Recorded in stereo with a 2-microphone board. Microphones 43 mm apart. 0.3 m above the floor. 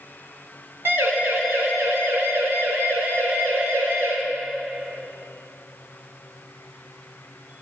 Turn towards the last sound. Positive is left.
turn(degrees=-70)  # may be behind; listen again after turning